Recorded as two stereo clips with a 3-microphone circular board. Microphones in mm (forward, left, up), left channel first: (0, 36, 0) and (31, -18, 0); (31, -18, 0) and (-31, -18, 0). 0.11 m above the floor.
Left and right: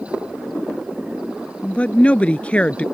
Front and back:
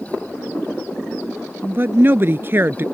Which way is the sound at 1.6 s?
175° left.